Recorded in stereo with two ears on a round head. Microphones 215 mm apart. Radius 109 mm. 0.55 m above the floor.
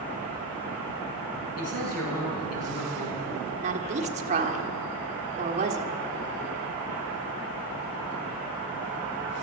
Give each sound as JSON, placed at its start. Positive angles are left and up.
{"t": 1.6, "sound": "a man speaking", "side_deg": 75, "distance_m": 5.5}
{"t": 3.6, "sound": "a woman speaking", "side_deg": -30, "distance_m": 1.4}